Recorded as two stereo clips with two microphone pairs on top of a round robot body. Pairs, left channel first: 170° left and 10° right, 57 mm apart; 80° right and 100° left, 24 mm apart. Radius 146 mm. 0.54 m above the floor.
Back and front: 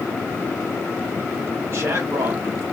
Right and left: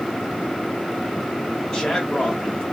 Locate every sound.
1.7 s a man speaking: 20° right, 1.8 m